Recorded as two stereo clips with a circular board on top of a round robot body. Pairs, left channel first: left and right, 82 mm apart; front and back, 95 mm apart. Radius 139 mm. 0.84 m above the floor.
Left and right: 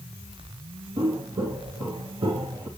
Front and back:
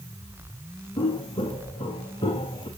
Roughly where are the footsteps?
Ahead right.